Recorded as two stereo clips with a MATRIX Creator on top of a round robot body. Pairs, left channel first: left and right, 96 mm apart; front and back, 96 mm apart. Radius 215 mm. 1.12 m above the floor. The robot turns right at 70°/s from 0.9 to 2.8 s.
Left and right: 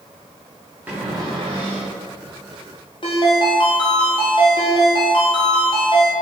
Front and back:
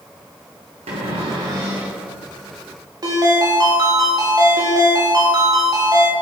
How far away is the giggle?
I don't hear a giggle.